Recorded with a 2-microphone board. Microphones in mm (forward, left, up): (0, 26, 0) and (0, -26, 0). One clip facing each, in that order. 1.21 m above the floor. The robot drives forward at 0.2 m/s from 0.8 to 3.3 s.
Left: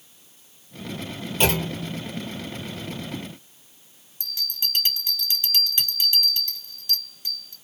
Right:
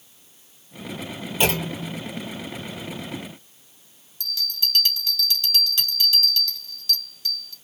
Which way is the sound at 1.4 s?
5° right (ahead or behind).